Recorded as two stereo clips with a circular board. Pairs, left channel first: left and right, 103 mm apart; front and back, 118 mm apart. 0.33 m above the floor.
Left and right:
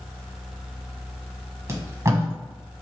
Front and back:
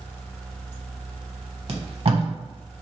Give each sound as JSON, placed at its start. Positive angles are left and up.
{"t": 1.7, "sound": "tape being pulled", "azimuth_deg": -150, "distance_m": 0.7}